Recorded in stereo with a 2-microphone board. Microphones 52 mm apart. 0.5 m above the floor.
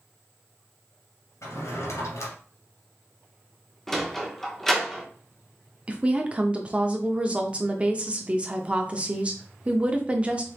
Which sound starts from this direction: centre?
A sliding door, at 3.9 s.